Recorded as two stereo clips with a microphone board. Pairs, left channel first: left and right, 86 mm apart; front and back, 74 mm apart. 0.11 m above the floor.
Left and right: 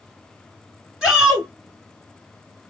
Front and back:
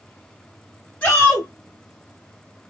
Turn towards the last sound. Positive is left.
turn(degrees=-20)